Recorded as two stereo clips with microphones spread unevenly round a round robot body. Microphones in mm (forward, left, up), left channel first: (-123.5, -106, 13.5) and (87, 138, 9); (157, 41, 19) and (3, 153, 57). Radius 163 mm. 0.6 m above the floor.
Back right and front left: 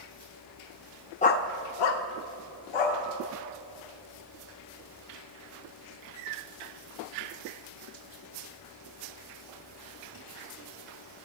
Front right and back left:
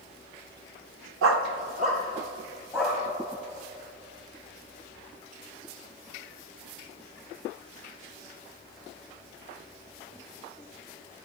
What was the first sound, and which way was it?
A dog barking, 160° left.